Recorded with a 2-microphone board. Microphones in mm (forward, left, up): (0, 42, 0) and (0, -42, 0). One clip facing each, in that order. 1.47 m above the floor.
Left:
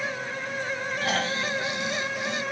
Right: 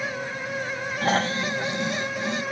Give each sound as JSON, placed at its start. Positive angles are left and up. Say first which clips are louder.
{"t": 1.0, "sound": "snoring", "louder": "right 5 dB", "side_deg": -35, "distance_m": 1.2}